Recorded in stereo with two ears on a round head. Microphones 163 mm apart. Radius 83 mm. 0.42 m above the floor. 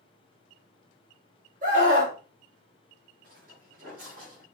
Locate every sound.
1.6 s a scream: 45° right (ahead or behind), 2.5 m
3.2 s footsteps: 50° right (ahead or behind), 3 m; by 4.5 s 45° right (ahead or behind), 4.5 m